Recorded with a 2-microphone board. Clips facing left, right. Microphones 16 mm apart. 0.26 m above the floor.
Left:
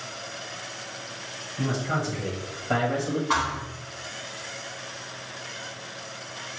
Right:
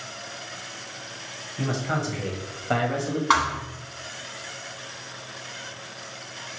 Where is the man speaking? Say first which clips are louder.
Even; 35° right (ahead or behind), 1.2 m; by 3.2 s centre (ahead or behind), 1.1 m.